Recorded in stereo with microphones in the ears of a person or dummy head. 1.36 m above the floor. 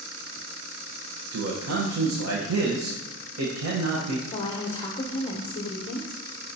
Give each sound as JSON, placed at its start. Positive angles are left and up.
{"t": 1.3, "sound": "a man speaking", "side_deg": -85, "distance_m": 1.0}
{"t": 4.3, "sound": "a woman speaking", "side_deg": 30, "distance_m": 0.6}